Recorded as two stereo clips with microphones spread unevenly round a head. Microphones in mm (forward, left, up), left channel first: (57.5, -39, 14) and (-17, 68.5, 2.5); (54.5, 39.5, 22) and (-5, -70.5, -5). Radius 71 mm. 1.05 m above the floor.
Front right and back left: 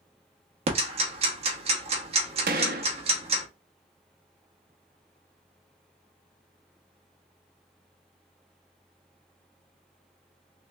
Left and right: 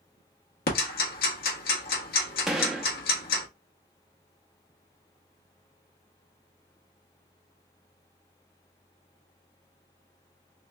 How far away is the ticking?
About 1.1 m.